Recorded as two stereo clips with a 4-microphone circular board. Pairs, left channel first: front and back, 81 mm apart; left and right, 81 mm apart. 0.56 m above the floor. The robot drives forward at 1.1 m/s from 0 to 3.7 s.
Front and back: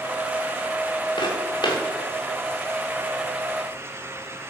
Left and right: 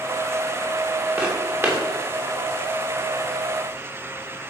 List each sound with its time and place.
1.2 s footsteps: 25° right, 6.5 m